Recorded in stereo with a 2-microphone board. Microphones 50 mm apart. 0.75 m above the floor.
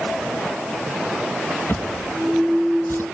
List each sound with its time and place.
1.7 s a drawer: 60° left (ahead or behind)